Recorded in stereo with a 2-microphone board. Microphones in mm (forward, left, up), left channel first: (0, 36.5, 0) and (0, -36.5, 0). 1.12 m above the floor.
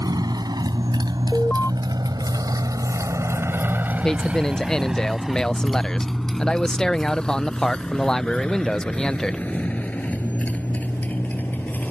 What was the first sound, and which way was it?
A motorcycle, 65° right (ahead or behind).